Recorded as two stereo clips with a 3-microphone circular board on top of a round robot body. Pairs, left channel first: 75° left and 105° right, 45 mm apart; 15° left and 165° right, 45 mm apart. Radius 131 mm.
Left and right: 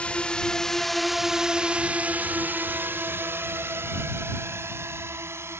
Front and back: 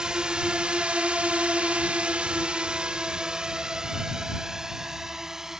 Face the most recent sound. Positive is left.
turn(degrees=-85)